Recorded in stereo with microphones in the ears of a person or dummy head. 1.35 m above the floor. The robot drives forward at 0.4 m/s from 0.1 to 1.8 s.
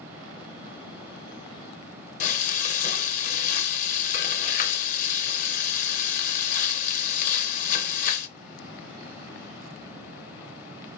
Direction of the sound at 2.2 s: 50° left (ahead or behind).